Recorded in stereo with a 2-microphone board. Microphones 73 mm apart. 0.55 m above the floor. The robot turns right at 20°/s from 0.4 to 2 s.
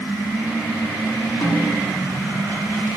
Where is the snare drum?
85° left, 1.8 m; by 2.0 s 75° left (ahead or behind), 1.8 m.